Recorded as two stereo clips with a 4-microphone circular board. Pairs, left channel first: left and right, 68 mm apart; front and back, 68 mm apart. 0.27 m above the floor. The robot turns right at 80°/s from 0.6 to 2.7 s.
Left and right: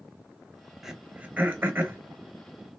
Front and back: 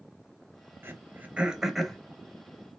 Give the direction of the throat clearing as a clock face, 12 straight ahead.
6 o'clock.